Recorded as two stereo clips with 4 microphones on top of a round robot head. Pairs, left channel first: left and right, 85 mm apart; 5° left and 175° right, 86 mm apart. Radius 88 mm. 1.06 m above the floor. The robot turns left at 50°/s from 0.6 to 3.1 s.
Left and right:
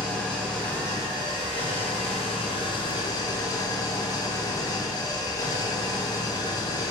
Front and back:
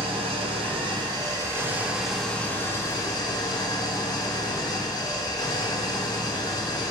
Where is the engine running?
175° left, 1.4 m; by 6.9 s 50° left, 1.4 m.